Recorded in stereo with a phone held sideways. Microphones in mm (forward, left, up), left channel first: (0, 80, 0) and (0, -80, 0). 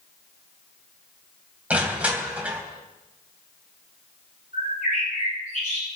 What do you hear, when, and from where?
1.7 s crushing: 10° right (ahead or behind), 3 m
4.5 s a bird: 70° left (ahead or behind), 7 m